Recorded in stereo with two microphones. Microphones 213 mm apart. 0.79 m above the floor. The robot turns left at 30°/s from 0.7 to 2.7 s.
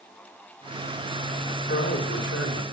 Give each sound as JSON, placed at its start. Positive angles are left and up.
{"t": 1.7, "sound": "a man speaking", "side_deg": 45, "distance_m": 3.5}